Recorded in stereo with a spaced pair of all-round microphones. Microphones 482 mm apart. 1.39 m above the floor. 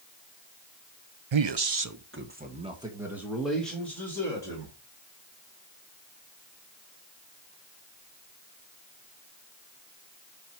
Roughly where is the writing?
No writing in this recording.